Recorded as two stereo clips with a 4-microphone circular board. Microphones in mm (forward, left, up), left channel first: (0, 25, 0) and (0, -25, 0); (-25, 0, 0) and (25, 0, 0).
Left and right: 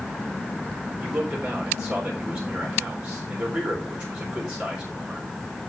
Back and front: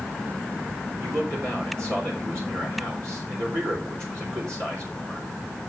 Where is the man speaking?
25° right, 3.5 m.